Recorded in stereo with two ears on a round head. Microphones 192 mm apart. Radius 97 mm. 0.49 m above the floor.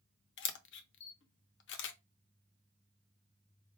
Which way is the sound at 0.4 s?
60° left (ahead or behind).